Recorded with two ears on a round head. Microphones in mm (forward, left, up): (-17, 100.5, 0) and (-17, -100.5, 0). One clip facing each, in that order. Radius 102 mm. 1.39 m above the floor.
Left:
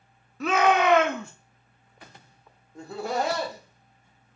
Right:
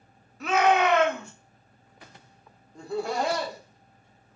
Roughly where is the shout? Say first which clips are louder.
Even; left.